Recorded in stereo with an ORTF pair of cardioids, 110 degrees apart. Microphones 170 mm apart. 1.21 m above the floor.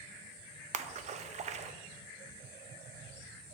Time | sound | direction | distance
0.7 | a splash | 45° right | 0.7 m